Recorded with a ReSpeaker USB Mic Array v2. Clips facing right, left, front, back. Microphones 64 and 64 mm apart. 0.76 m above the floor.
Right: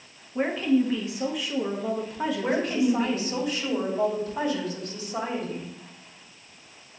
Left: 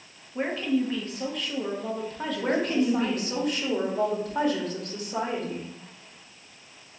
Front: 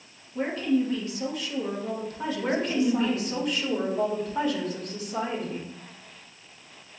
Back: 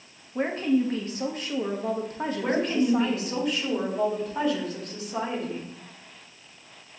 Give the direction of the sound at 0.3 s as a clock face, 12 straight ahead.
6 o'clock.